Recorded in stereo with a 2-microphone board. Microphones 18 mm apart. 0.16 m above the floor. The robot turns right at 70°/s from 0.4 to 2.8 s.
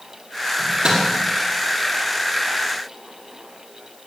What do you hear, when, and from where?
0.6 s a microwave: 40° right (ahead or behind), 5 m; by 1.0 s 65° right (ahead or behind), 5 m